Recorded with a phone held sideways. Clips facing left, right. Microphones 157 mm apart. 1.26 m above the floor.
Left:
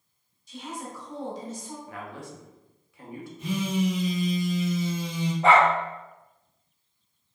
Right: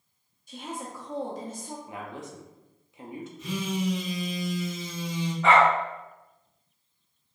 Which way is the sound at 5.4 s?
35° left (ahead or behind).